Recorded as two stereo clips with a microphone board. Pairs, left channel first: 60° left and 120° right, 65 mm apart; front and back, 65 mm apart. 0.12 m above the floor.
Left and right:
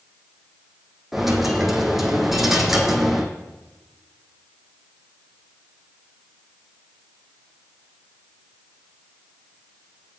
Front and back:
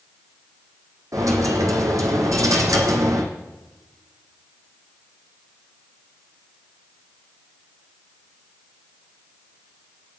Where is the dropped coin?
155° left, 1.8 m.